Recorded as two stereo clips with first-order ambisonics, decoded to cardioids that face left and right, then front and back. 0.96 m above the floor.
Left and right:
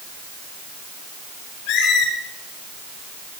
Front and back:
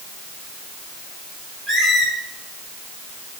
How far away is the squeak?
About 6 m.